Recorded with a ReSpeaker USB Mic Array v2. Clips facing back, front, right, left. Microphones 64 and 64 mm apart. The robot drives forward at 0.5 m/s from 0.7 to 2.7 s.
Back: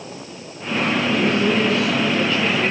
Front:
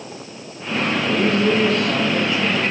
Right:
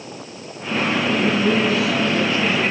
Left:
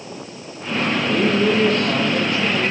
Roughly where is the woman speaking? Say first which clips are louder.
Front 2 dB, left 3 dB; ahead left.